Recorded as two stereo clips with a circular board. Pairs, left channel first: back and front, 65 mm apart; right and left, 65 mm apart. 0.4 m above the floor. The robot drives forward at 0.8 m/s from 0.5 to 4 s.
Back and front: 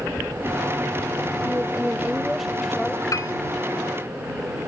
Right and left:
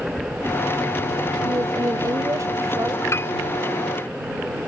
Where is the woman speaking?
55° left; by 3.0 s 105° left.